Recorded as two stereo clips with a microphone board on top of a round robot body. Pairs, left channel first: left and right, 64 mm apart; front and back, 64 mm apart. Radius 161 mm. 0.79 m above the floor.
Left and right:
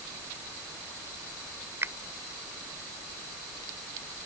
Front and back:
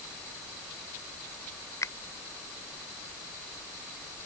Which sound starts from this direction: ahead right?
A finger snap, at 1.8 s.